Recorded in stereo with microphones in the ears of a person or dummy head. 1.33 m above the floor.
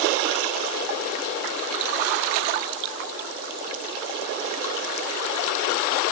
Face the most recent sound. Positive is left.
No sound to turn to.